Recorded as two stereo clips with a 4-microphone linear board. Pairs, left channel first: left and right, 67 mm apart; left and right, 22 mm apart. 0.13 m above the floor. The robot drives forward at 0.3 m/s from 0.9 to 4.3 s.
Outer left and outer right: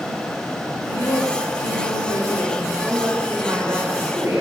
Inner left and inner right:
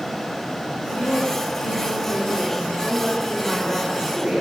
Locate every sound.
0.9 s a man speaking: 55° left (ahead or behind), 8 m
2.8 s a woman speaking: 35° right (ahead or behind), 10 m; by 4.4 s 30° right (ahead or behind), 10.5 m